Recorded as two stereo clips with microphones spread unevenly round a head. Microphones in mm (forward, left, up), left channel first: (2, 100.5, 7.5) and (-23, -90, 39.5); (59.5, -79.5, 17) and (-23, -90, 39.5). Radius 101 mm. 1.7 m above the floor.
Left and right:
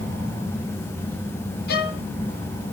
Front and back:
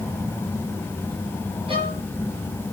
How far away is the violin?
About 0.7 m.